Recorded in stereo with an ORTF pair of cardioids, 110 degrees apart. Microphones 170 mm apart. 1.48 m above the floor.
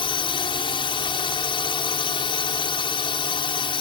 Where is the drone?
30° left.